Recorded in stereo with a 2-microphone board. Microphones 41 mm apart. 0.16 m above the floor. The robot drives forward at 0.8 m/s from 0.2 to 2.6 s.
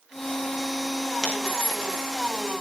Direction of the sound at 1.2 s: 10° left (ahead or behind).